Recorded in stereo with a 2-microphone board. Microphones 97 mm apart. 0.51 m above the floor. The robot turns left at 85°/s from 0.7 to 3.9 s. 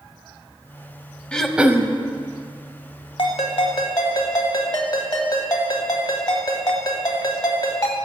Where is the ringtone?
105° left, 1.4 m; by 8.0 s 45° left, 1.4 m.